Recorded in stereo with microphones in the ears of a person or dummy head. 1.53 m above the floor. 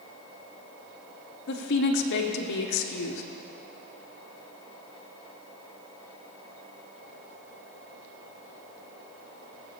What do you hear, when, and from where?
1.5 s a woman speaking: 65° left (ahead or behind), 1.2 m